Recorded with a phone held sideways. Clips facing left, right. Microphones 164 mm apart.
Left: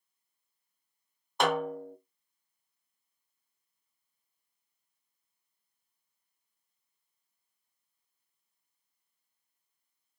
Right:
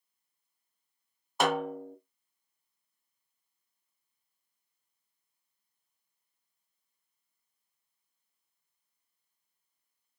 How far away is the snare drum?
About 0.7 m.